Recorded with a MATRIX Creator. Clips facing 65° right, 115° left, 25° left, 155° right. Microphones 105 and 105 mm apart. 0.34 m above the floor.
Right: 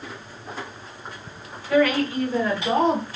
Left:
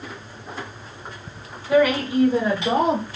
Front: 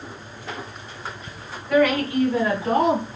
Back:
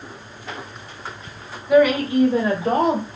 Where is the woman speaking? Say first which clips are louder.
Left 2 dB, back 4 dB; 140° left, 1.2 m; by 3.1 s 165° right, 1.6 m.